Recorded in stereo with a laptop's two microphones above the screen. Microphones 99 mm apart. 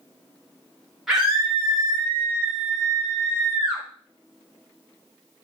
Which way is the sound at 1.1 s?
5° right (ahead or behind).